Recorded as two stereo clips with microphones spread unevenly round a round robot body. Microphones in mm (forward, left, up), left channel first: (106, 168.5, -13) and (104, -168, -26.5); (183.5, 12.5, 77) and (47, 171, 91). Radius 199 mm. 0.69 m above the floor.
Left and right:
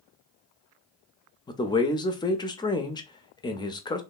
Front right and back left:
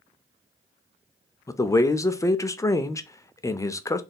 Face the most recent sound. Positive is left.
turn(degrees=15)